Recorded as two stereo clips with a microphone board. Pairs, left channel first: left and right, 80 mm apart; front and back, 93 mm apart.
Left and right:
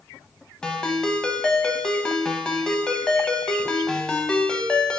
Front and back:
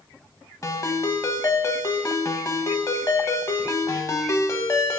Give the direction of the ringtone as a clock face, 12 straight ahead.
11 o'clock.